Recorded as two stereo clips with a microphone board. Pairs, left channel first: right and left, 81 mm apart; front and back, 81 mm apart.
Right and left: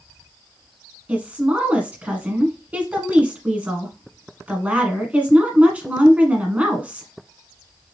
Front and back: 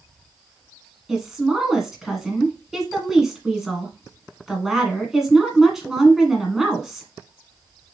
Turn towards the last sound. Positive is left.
turn(degrees=105)